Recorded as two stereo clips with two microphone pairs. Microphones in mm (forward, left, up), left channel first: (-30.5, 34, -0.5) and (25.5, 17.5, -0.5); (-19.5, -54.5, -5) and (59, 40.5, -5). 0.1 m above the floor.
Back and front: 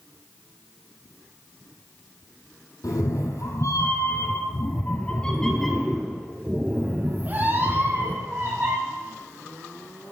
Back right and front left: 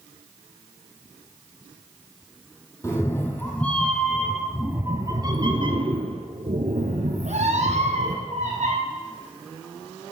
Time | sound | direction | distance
2.8 | a cat meowing | 165° left | 2 m